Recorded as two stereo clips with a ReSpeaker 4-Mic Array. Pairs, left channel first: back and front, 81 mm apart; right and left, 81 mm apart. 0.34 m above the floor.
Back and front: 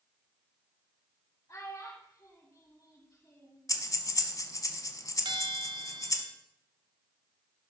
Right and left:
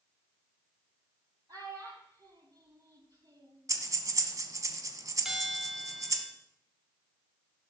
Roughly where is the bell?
Ahead.